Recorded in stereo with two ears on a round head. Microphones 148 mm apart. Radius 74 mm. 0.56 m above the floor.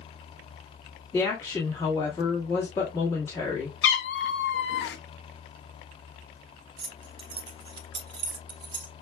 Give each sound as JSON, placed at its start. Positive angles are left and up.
{"t": 1.1, "sound": "a woman speaking", "side_deg": 15, "distance_m": 1.2}
{"t": 3.8, "sound": "a cat meowing", "side_deg": 75, "distance_m": 0.7}
{"t": 6.8, "sound": "keys jangling", "side_deg": -30, "distance_m": 0.7}